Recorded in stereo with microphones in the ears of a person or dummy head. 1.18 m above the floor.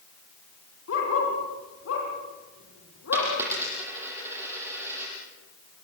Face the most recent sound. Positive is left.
turn(degrees=-15)  # may be behind; listen again after turning